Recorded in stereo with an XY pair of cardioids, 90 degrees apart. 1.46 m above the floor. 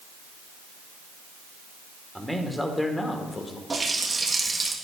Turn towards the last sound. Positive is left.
turn(degrees=-30)